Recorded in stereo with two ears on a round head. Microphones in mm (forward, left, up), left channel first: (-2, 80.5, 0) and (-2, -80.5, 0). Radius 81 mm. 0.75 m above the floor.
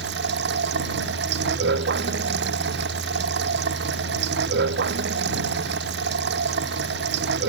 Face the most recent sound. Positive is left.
turn(degrees=-65)  # may be behind; listen again after turning